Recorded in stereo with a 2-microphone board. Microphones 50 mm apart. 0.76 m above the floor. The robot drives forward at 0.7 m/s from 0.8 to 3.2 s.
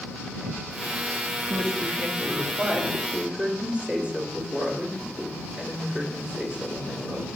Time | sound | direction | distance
1.5 | a woman speaking | 50° right (ahead or behind) | 1.1 m